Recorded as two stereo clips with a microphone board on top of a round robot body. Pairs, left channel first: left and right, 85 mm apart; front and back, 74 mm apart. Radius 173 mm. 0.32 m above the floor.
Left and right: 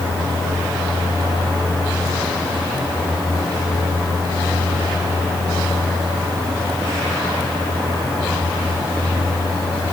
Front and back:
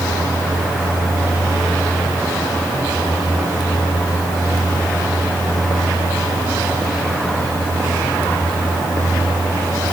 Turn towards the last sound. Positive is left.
No sound to turn to.